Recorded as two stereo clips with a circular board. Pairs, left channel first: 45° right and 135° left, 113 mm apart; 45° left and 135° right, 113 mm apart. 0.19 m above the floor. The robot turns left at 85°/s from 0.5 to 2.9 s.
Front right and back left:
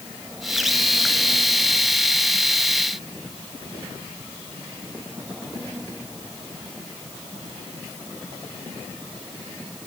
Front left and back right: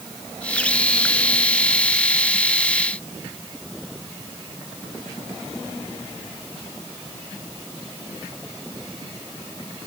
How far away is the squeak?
I don't hear a squeak.